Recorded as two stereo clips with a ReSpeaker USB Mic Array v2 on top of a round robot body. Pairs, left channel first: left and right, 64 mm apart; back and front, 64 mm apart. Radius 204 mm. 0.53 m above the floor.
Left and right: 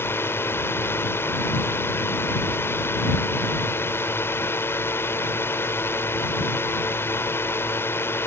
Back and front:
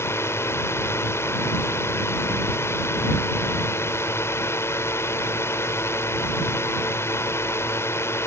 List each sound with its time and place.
0.0 s a drone: 140° left